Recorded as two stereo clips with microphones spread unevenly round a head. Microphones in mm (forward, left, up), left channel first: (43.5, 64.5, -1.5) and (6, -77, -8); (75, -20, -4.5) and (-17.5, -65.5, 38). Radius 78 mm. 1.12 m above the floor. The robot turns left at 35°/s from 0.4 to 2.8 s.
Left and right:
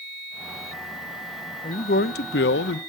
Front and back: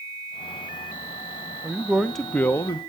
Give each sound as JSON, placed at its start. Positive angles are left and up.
{"t": 1.6, "sound": "a man speaking", "azimuth_deg": 120, "distance_m": 0.6}